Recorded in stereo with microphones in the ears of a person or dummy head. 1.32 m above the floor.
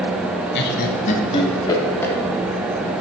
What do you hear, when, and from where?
0.6 s laughter: 60° left (ahead or behind), 0.8 m; by 2.1 s 10° left (ahead or behind), 1.2 m